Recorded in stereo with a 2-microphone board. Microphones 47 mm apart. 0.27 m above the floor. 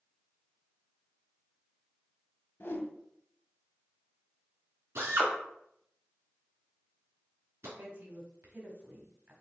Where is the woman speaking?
40° right (ahead or behind), 1.5 m.